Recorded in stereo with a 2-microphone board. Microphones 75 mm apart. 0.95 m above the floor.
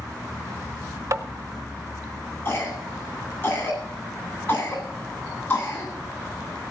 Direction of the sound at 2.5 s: 35° left (ahead or behind).